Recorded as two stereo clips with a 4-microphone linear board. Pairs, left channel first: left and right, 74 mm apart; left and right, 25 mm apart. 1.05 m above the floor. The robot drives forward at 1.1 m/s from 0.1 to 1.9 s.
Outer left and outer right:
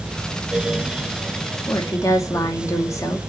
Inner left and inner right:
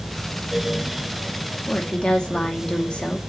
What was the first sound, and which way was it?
A woman speaking, 50° left (ahead or behind).